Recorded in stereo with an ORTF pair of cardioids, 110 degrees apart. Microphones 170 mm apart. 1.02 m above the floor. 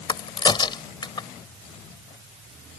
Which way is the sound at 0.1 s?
25° left.